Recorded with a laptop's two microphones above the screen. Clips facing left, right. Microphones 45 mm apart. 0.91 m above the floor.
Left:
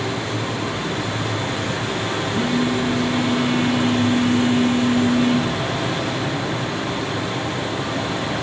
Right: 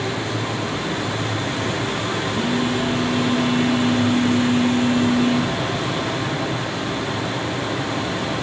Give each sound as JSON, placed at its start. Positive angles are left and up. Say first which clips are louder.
{"t": 2.3, "sound": "a phone buzzing", "louder": "left 2 dB", "side_deg": 35, "distance_m": 0.9}